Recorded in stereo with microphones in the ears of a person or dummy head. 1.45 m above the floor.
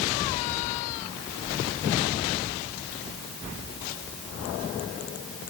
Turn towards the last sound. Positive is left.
No sound to turn to.